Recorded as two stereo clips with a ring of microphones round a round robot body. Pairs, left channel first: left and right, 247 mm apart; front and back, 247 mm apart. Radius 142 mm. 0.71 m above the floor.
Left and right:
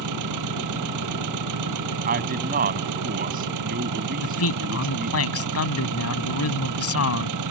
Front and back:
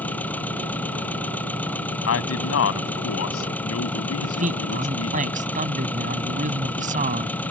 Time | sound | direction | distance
0.0 | an engine running | 85° right | ?
2.1 | a man speaking | 30° right | ?
4.2 | a man speaking | 115° left | ?